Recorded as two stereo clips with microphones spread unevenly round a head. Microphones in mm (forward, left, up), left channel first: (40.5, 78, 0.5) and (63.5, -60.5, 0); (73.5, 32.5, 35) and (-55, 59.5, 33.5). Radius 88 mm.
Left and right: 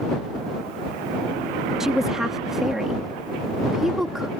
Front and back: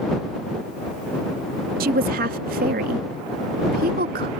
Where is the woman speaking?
170° right.